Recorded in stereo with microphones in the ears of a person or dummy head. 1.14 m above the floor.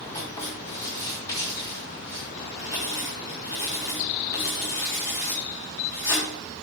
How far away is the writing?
About 3 m.